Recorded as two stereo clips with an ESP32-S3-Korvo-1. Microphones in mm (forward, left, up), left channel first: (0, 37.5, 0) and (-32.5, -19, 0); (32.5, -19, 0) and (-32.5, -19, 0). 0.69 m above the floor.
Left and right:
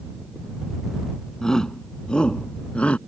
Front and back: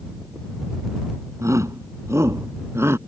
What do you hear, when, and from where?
1.4 s a shout: 140° left; by 3.0 s 130° left